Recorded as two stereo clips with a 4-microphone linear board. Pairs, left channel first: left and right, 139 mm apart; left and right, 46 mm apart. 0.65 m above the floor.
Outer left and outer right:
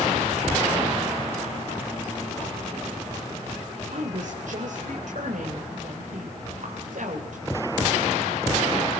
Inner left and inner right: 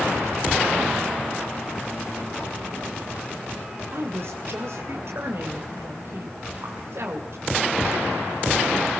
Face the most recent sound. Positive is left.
turn(degrees=-70)  # may be behind; listen again after turning